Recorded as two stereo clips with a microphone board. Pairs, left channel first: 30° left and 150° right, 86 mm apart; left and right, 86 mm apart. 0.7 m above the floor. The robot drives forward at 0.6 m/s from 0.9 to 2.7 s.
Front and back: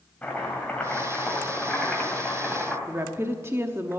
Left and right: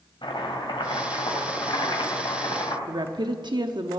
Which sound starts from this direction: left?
Chopping, at 0.2 s.